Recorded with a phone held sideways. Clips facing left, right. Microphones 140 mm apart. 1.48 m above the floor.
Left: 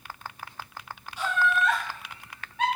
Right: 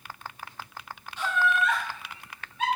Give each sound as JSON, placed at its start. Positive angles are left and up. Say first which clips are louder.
{"t": 1.2, "sound": "laughter", "louder": "even", "side_deg": 10, "distance_m": 0.6}